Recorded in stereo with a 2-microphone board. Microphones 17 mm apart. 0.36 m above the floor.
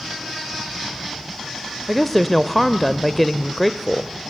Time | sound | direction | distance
1.9 | a woman speaking | 5° left (ahead or behind) | 1.0 m